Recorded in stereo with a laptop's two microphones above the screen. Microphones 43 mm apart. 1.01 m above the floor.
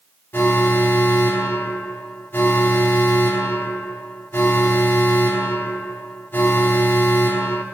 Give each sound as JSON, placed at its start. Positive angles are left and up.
{"t": 0.3, "sound": "an alarm", "side_deg": 60, "distance_m": 3.0}